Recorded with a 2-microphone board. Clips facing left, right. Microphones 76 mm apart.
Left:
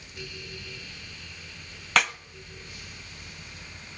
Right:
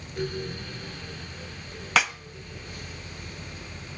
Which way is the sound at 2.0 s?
Centre (ahead or behind).